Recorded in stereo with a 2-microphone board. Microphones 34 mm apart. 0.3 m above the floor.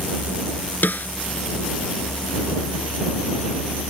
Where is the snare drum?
65° left (ahead or behind).